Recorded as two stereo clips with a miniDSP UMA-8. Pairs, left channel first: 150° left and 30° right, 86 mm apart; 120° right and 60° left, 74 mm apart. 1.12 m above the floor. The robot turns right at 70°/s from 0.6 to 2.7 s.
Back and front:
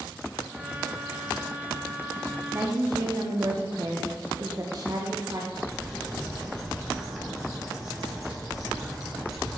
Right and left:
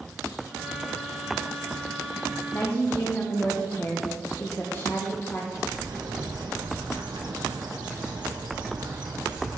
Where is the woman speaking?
80° right, 0.7 m; by 5.4 s 65° right, 0.7 m.